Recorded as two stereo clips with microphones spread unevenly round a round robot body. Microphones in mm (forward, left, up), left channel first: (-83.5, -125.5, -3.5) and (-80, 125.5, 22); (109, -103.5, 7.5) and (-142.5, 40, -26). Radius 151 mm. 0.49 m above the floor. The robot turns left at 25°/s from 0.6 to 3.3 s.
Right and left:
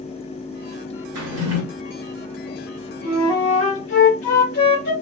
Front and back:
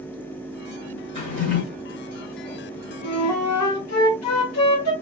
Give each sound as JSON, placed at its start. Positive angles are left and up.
{"t": 1.1, "sound": "a drawer", "azimuth_deg": 45, "distance_m": 0.8}
{"t": 3.0, "sound": "a flute", "azimuth_deg": -50, "distance_m": 0.9}